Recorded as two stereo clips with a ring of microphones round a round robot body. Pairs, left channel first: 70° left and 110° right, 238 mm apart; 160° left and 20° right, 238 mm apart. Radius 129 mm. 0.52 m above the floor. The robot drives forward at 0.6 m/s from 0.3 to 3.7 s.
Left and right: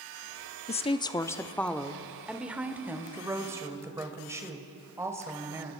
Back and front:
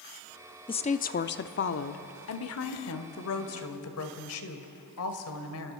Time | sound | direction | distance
0.7 | a woman speaking | 105° left | 0.7 m